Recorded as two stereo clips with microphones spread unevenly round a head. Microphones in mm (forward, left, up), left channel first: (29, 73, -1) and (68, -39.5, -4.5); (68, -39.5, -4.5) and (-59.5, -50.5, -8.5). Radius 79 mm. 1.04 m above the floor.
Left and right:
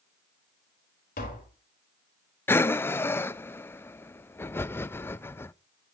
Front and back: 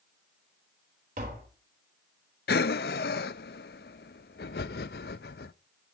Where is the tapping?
140° left, 4.5 m.